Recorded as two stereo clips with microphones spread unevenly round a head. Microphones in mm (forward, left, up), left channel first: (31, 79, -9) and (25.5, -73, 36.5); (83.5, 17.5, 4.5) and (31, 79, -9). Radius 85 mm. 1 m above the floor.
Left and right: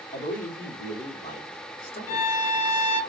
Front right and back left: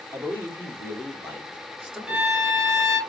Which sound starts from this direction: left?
A man speaking, at 0.1 s.